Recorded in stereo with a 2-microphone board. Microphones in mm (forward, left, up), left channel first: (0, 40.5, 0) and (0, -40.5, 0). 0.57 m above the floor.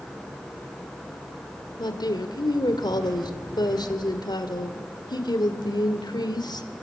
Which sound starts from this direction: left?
A woman speaking, at 1.8 s.